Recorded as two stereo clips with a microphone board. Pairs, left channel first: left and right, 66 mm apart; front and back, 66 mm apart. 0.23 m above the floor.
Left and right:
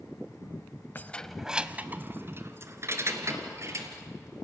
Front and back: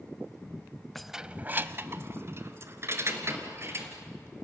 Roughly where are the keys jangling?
Left.